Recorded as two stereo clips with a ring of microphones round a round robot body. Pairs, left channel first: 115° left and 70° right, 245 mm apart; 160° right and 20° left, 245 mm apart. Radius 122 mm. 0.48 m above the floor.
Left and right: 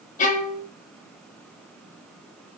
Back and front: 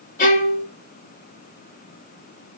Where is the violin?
160° left, 0.6 m.